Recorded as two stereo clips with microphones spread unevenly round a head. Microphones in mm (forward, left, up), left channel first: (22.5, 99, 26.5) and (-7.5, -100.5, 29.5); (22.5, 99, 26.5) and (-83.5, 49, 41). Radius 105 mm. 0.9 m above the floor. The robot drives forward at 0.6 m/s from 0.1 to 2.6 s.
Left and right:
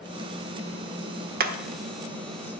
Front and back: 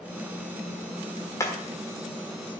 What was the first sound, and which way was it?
Hammering, 55° right.